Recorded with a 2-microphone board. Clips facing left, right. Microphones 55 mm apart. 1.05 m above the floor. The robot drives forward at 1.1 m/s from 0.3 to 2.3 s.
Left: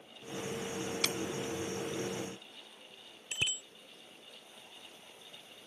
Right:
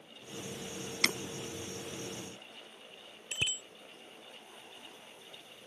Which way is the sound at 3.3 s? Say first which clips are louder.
Even; 5° right (ahead or behind).